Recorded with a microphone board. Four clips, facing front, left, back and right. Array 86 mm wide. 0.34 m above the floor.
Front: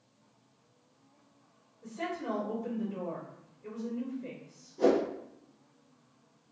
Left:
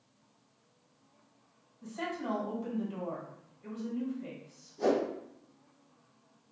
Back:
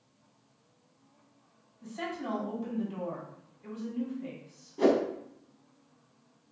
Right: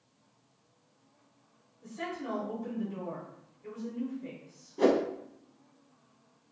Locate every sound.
1.8 s a woman speaking: 135° left, 1.9 m
4.8 s a whoosh: 120° right, 0.6 m